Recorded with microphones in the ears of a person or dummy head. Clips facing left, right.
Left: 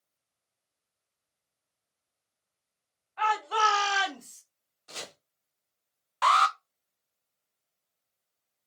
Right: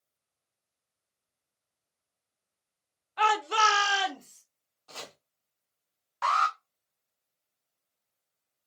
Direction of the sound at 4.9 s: 15° left (ahead or behind).